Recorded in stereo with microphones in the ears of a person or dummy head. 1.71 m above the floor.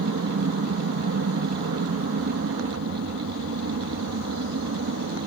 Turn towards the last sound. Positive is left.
turn(degrees=-70)  # may be behind; listen again after turning